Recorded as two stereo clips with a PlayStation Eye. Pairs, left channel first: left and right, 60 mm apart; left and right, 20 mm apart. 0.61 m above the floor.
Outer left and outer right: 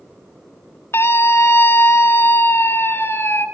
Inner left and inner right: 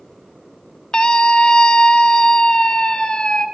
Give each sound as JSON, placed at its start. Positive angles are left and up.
{"t": 0.9, "sound": "a scream", "side_deg": 45, "distance_m": 1.9}